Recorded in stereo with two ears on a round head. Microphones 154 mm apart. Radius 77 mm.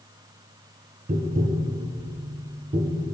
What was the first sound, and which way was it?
Tapping, 40° right (ahead or behind).